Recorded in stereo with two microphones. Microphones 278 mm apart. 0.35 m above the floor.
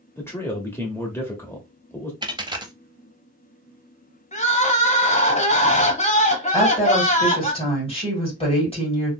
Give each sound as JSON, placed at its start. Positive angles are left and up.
{"t": 0.2, "sound": "a man speaking", "side_deg": 10, "distance_m": 0.9}
{"t": 2.2, "sound": "a dropped coin", "side_deg": -15, "distance_m": 0.6}
{"t": 4.3, "sound": "crying", "side_deg": 25, "distance_m": 0.8}
{"t": 6.5, "sound": "a woman speaking", "side_deg": 20, "distance_m": 2.0}